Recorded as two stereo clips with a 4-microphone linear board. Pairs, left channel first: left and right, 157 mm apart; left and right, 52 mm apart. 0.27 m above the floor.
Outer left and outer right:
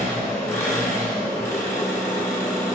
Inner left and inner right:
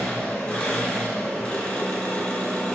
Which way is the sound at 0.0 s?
20° left (ahead or behind).